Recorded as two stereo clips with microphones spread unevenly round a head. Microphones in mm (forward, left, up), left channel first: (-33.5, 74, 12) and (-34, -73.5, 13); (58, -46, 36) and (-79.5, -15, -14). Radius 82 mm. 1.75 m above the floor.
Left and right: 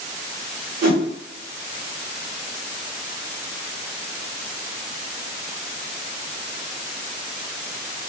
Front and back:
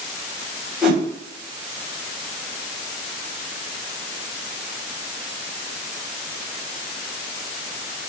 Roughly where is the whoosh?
Right.